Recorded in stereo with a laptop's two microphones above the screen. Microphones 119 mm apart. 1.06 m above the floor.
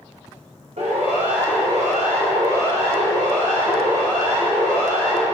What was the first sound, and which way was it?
A siren, 75° right (ahead or behind).